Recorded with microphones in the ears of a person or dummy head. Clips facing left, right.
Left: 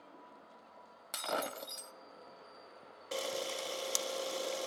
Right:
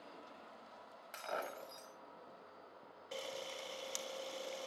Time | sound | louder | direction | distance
1.1 | breaking glass | left 5 dB | 55° left (ahead or behind) | 1.2 m
3.1 | a camera shutter | left 8 dB | 55° left (ahead or behind) | 0.5 m